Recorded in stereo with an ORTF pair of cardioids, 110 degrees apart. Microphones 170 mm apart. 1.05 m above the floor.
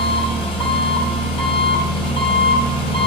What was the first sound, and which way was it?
An engine running, 40° left.